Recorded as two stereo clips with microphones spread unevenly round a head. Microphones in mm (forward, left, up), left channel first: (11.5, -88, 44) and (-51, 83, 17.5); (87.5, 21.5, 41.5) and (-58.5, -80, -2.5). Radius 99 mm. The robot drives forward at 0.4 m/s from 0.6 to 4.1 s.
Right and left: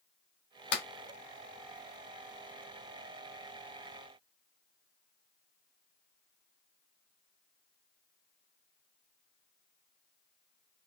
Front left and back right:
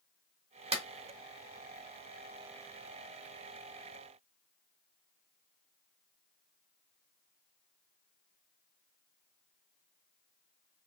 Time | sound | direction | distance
0.7 | a clap | 90° right | 2 m